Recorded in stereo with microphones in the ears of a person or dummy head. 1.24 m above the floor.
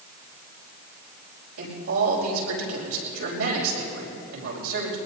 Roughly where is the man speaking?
Right.